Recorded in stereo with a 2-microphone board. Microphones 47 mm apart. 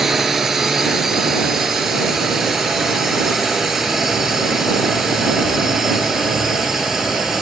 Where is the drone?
5° right (ahead or behind).